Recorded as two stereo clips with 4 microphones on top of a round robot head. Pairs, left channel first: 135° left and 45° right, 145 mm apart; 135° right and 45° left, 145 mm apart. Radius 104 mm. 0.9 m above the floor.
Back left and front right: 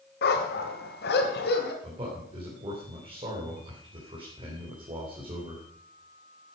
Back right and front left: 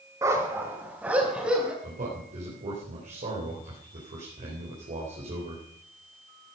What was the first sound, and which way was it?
A dog barking, 120° left.